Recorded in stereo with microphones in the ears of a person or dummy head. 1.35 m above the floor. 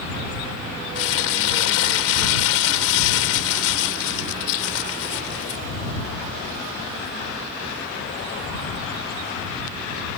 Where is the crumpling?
75° left (ahead or behind).